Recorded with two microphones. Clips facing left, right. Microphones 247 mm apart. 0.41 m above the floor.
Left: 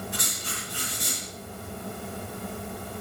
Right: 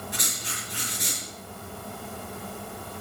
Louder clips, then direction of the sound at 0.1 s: Left 1 dB; 20° right (ahead or behind).